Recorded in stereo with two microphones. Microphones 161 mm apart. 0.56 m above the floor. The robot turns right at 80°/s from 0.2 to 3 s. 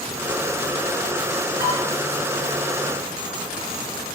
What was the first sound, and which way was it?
Dishes clattering, 60° right (ahead or behind).